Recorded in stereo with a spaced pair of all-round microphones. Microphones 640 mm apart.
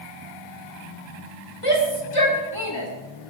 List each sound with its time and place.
1.6 s a shout: 55° left (ahead or behind), 4 m; by 2.9 s 45° left (ahead or behind), 4 m